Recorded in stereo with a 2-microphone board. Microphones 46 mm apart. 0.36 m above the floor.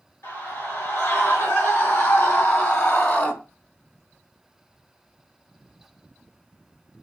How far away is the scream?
About 5 m.